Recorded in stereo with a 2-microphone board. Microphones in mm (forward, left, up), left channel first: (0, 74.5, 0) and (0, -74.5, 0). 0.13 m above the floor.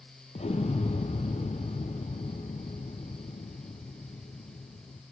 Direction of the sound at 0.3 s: 50° left (ahead or behind).